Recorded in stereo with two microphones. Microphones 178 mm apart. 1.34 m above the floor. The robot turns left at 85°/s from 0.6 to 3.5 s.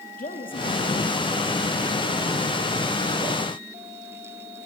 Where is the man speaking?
135° left, 2.5 m; by 2.4 s 25° right, 2.5 m.